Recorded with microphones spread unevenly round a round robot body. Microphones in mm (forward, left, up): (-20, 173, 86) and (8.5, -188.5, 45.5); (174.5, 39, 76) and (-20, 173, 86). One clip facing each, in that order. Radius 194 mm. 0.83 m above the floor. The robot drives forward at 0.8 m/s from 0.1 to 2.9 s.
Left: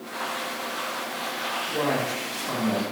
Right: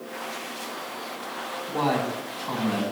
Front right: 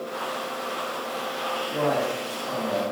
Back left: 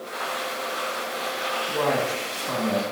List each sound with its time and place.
1.7 s a man speaking: 155° right, 5.5 m; by 2.8 s 160° right, 6 m